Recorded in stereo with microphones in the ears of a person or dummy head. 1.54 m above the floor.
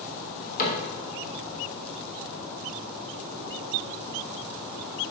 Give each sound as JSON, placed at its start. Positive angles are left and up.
{"t": 0.6, "sound": "a cupboard door", "side_deg": 50, "distance_m": 3.0}